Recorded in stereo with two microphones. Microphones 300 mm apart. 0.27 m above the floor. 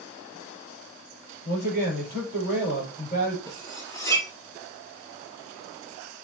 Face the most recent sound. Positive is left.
turn(degrees=10)  # may be behind; listen again after turning